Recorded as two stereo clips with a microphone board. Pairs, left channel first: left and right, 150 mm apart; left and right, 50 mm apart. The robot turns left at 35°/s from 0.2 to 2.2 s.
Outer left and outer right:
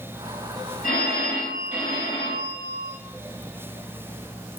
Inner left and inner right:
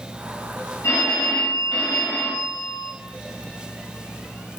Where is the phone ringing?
85° left, 1.4 m; by 2.9 s 35° left, 1.4 m.